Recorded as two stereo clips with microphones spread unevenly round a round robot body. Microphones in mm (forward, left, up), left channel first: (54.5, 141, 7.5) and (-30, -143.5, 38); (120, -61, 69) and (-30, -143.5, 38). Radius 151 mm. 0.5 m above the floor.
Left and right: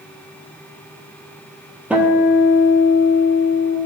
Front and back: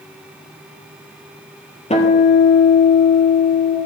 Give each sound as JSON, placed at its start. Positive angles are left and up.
{"t": 1.9, "sound": "a guitar", "azimuth_deg": -20, "distance_m": 2.5}